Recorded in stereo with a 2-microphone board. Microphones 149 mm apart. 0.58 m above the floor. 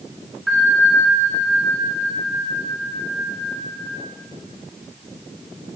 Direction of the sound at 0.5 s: Centre (ahead or behind).